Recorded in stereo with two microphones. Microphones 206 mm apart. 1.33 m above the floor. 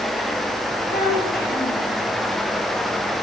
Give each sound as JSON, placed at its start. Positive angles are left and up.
{"t": 0.9, "sound": "a child speaking", "side_deg": 45, "distance_m": 5.5}